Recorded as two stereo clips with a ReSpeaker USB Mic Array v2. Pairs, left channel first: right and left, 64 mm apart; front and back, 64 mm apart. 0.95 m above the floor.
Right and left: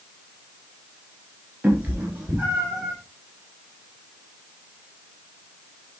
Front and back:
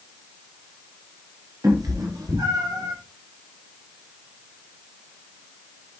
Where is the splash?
No splash in this recording.